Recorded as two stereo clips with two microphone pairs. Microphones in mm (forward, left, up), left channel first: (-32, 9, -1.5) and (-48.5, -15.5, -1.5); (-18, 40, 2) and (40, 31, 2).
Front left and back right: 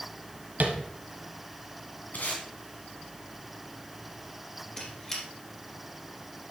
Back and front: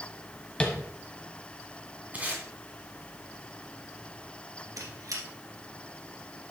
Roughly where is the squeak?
Ahead.